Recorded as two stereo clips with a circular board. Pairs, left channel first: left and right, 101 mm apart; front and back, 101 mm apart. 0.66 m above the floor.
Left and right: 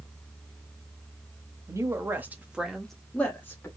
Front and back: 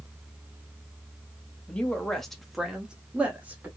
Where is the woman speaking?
75° right, 1.2 m; by 3.7 s 125° left, 1.2 m.